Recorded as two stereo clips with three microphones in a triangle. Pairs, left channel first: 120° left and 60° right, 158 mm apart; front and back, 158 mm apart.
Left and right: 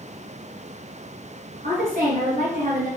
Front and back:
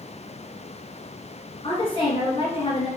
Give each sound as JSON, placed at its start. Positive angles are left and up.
{"t": 1.6, "sound": "a woman speaking", "azimuth_deg": -50, "distance_m": 2.5}